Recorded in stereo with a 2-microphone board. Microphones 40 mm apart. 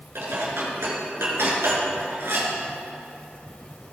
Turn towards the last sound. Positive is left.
turn(degrees=-80)